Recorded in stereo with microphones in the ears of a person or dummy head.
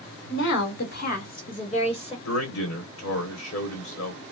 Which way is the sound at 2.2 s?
80° left.